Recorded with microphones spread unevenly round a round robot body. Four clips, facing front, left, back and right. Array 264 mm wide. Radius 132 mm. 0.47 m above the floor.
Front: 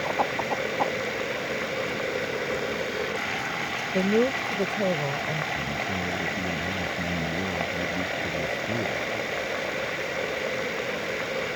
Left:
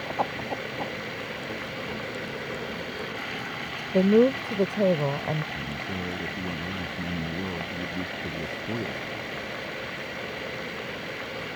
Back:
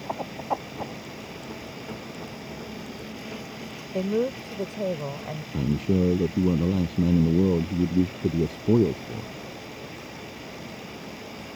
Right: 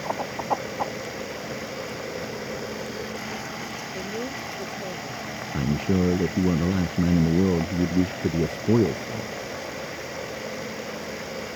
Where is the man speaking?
135° right.